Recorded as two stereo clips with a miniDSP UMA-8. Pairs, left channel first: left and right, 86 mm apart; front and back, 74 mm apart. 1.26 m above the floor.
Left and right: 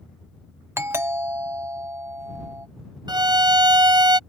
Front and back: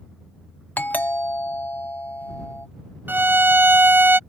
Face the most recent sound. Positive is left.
turn(degrees=-115)